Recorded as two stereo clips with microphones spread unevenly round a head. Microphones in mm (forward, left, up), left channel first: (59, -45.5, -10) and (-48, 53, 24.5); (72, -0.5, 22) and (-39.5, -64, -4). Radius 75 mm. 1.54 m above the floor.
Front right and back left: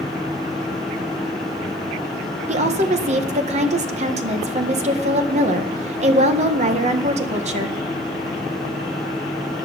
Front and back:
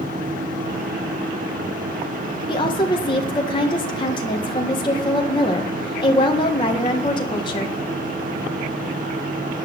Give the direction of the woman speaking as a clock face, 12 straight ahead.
9 o'clock.